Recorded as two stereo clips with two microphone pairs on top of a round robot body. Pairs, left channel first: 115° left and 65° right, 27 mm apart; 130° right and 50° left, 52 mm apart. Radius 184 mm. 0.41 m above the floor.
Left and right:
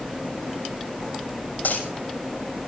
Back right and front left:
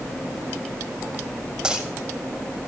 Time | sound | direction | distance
1.6 | a dropped coin | 125° left | 6.5 m